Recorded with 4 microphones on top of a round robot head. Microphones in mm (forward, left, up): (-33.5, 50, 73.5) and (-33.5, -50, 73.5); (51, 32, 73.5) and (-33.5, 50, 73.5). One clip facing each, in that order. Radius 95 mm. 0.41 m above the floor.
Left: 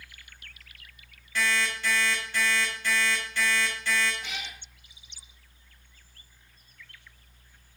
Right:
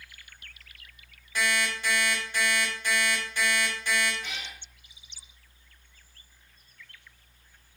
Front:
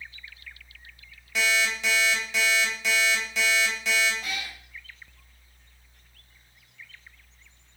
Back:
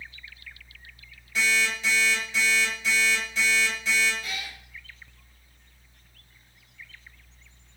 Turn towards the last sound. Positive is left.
turn(degrees=10)